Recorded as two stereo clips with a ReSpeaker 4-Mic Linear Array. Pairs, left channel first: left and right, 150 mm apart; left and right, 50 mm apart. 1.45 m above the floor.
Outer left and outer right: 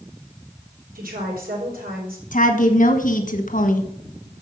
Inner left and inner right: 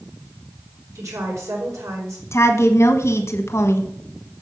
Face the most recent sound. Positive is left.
turn(degrees=60)  # may be behind; listen again after turning